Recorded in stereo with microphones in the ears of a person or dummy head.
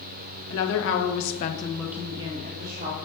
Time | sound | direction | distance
0.5 | a woman speaking | 75° left (ahead or behind) | 1.6 m